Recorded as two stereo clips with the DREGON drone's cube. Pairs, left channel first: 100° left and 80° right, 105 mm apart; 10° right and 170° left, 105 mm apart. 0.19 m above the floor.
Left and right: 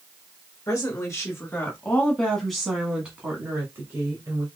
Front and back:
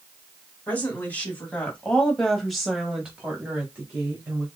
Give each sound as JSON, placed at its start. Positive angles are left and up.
{"t": 0.7, "sound": "a woman speaking", "azimuth_deg": 55, "distance_m": 1.7}